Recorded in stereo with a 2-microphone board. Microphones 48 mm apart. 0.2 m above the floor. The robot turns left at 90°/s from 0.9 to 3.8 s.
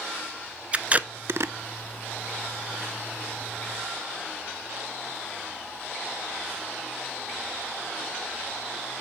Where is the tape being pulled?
30° right (ahead or behind), 0.5 m; by 1.5 s 75° right (ahead or behind), 0.5 m.